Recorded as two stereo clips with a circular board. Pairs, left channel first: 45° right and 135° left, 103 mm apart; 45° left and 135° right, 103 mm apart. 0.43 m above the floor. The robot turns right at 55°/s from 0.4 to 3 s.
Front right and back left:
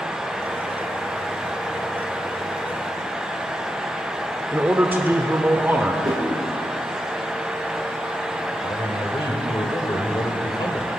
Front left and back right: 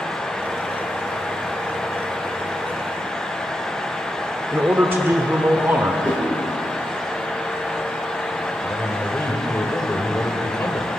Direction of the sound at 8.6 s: 15° right.